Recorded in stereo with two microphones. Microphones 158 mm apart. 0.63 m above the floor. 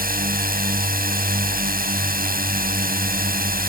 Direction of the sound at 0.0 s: 70° right (ahead or behind).